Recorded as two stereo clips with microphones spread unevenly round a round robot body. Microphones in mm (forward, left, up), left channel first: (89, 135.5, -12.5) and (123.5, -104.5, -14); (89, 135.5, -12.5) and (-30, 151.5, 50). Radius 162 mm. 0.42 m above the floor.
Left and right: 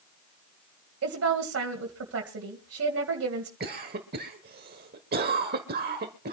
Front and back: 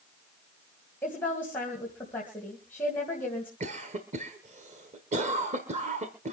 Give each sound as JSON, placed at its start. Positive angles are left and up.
{"t": 1.0, "sound": "a woman speaking", "azimuth_deg": -70, "distance_m": 2.0}
{"t": 3.6, "sound": "a cough", "azimuth_deg": -130, "distance_m": 1.2}